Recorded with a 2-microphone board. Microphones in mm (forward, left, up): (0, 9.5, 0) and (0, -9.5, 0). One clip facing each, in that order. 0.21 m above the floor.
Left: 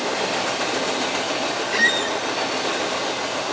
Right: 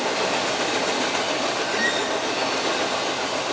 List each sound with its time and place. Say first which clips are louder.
1.7 s a squeak: left 7 dB; 25° left (ahead or behind), 1.1 m